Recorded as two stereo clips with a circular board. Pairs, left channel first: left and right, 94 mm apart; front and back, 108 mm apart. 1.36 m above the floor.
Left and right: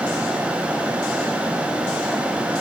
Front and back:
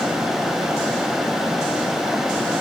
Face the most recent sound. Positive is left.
No sound to turn to.